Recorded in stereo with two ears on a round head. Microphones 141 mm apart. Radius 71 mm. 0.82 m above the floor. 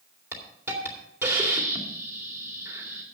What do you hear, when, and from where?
0.3 s a hiss: 10° right (ahead or behind), 2.5 m